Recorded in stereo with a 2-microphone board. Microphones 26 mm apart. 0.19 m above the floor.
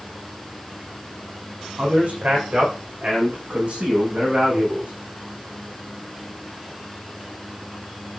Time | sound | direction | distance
1.8 | a man speaking | 60° right (ahead or behind) | 9.5 m